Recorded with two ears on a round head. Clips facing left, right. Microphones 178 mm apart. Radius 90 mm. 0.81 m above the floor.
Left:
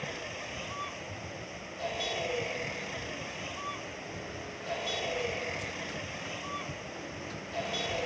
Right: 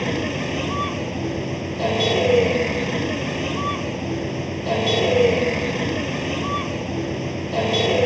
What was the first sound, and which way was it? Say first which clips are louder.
A vehicle: right 17 dB; 75° right (ahead or behind).